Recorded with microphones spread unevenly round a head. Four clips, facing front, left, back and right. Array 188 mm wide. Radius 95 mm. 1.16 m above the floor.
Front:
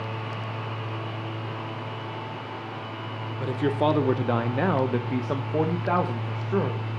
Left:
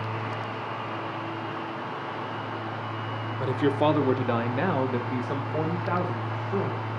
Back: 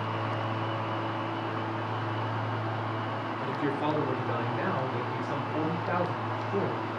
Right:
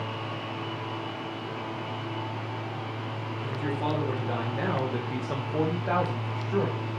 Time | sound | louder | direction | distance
3.4 | a man speaking | left 8 dB, front 7 dB | 65° left | 1.0 m